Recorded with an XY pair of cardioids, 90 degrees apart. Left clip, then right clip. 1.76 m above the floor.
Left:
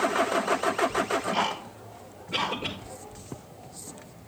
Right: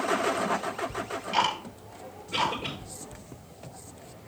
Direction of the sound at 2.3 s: 15° left.